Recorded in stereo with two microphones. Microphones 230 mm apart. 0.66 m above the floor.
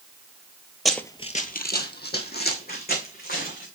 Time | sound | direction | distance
0.8 | running footsteps | centre (ahead or behind) | 0.8 m